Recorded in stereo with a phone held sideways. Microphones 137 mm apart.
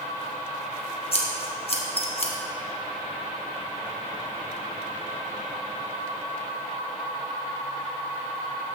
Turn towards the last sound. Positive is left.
turn(degrees=45)  # may be behind; listen again after turning